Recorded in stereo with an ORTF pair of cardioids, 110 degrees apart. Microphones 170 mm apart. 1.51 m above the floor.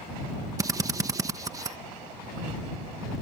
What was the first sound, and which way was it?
A drill, 20° right.